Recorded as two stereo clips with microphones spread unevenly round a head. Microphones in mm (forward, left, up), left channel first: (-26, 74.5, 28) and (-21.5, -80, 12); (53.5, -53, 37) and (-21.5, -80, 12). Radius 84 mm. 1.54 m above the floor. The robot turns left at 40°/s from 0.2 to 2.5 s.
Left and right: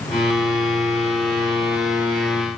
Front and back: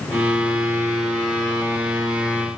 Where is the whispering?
No whispering in this recording.